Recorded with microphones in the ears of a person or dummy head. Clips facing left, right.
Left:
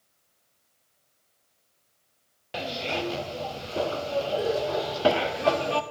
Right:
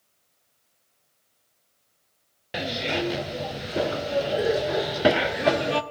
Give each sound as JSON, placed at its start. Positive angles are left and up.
{"t": 2.5, "sound": "a zipper", "side_deg": -20, "distance_m": 0.8}